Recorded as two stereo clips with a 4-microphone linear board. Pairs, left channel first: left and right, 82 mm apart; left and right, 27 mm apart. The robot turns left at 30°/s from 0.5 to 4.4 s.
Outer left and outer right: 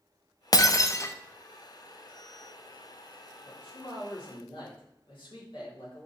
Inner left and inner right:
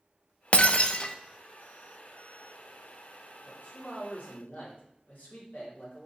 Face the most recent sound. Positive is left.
turn(degrees=75)  # may be behind; listen again after turning